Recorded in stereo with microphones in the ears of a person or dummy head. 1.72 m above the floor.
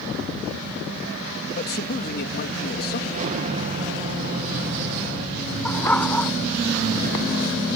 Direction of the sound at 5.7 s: 5° left (ahead or behind).